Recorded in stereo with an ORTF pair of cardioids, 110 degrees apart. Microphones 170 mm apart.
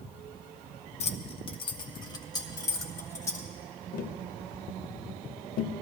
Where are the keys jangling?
40° left, 0.7 m; by 3.5 s 15° left, 2.0 m.